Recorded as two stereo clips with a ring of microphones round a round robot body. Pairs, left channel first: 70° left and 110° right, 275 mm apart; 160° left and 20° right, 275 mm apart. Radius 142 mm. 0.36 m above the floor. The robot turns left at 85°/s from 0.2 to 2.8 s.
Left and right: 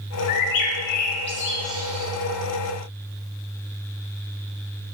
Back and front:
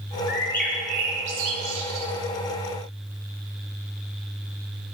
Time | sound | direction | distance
0.3 | a bird | 95° left | 0.5 m